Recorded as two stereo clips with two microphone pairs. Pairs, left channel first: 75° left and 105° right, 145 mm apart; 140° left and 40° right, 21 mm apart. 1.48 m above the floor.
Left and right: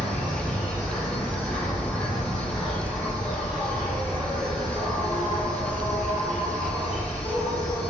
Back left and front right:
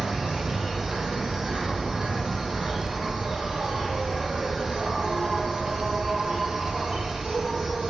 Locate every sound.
0.0 s an insect: 15° right, 1.8 m